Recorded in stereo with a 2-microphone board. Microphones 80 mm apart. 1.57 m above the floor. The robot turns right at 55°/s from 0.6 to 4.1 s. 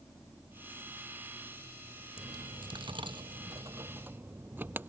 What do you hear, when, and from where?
2.2 s a dropped coin: 50° right (ahead or behind); by 4.9 s 25° right (ahead or behind)